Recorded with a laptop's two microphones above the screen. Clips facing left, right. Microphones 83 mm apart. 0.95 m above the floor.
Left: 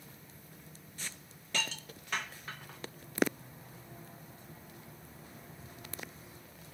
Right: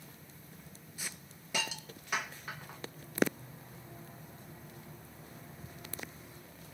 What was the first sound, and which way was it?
A hiss, 10° right (ahead or behind).